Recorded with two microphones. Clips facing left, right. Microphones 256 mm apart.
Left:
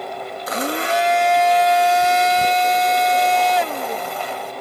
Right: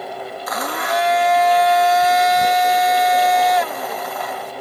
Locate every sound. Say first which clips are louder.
0.5 s a blender: left 3 dB; 30° left (ahead or behind)